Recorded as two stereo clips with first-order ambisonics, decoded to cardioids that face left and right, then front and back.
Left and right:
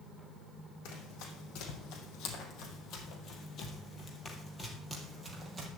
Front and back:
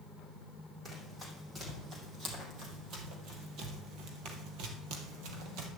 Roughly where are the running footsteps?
Left.